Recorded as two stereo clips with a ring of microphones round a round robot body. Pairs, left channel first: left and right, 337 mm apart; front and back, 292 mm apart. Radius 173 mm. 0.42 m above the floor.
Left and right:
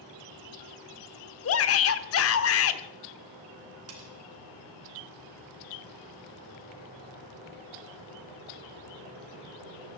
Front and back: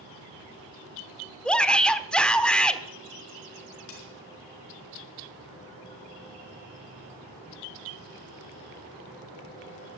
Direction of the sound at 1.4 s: 85° left.